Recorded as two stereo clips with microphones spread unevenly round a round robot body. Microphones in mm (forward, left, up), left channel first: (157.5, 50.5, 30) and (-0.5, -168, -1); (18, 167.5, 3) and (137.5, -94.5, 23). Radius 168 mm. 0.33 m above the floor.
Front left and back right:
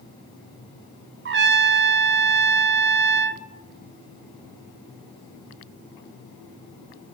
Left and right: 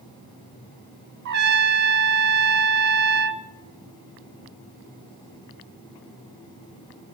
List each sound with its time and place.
1.2 s a trumpet: 115° right, 0.9 m